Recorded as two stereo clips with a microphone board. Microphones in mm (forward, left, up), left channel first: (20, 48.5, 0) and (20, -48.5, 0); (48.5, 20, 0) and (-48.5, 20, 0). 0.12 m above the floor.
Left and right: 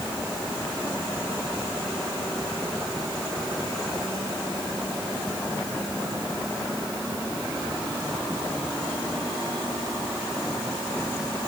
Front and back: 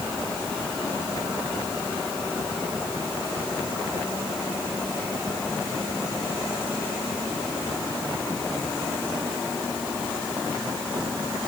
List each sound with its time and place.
Only background noise.